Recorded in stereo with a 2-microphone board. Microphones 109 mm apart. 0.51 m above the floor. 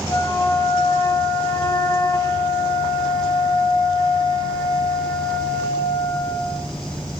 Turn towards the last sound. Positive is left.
turn(degrees=30)  # may be behind; listen again after turning